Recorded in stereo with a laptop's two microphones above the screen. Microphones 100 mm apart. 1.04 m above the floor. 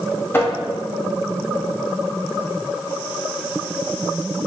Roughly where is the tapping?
Left.